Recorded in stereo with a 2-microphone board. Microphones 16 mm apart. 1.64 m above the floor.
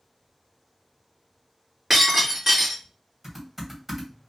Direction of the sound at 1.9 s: 20° right (ahead or behind).